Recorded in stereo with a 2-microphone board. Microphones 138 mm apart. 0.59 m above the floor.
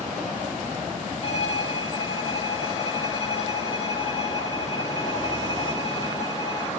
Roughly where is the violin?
Left.